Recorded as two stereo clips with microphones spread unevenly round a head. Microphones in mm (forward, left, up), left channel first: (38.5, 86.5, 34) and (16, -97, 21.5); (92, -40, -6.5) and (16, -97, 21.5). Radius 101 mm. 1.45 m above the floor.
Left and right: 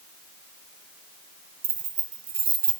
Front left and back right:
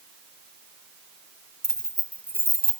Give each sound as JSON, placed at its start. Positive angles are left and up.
{"t": 1.6, "sound": "keys jangling", "azimuth_deg": -55, "distance_m": 1.5}